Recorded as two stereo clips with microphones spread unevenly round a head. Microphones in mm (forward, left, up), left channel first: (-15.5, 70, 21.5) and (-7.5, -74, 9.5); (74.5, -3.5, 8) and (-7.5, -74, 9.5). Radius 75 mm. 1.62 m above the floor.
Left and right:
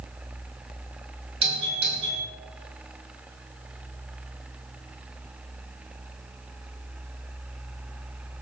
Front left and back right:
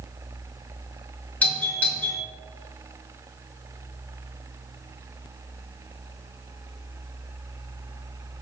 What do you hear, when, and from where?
1.4 s a doorbell: 35° right, 6 m